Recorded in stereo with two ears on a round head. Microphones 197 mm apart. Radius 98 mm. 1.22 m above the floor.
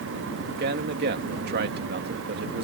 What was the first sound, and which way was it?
A man speaking, 45° right (ahead or behind).